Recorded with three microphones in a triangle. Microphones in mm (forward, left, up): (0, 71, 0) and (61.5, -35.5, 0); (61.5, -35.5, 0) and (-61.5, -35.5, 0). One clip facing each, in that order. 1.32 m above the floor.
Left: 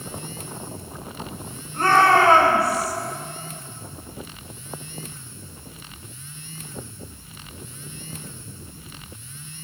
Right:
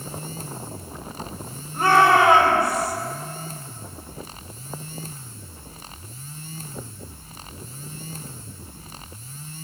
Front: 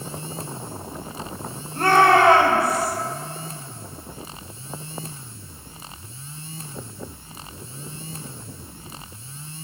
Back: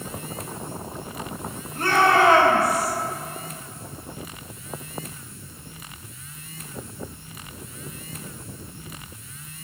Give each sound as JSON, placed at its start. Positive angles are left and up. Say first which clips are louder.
{"t": 1.7, "sound": "a shout", "louder": "even, front 3 dB", "azimuth_deg": 20, "distance_m": 5.0}